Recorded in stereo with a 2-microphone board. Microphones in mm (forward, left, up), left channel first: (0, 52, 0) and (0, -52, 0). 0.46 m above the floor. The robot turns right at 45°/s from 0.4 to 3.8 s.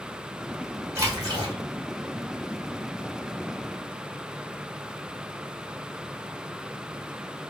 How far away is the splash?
About 1.6 m.